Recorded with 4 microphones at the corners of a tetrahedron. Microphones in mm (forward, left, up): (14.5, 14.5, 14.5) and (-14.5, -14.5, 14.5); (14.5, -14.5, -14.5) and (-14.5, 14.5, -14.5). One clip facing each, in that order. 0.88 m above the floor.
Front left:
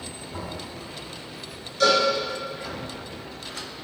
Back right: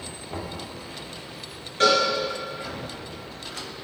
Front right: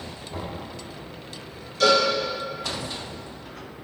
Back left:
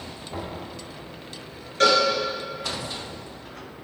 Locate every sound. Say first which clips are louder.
0.3 s knocking: back right 1 dB, back left 1 dB; 155° right, 2 m
1.8 s a cowbell: even, even; 175° left, 2.5 m